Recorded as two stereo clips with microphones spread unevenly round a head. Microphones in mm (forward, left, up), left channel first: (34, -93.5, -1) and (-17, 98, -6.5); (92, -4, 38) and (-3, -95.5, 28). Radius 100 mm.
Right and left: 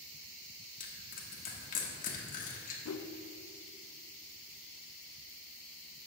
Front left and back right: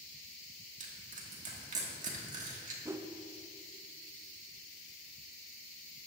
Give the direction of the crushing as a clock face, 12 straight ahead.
4 o'clock.